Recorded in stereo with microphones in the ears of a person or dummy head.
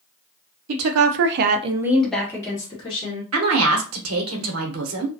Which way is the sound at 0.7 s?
80° right.